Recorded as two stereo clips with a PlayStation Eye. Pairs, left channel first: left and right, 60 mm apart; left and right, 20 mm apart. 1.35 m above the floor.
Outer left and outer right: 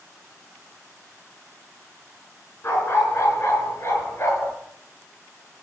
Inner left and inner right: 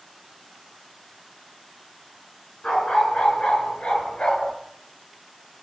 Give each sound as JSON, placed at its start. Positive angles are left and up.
{"t": 2.6, "sound": "a dog barking", "side_deg": 50, "distance_m": 6.5}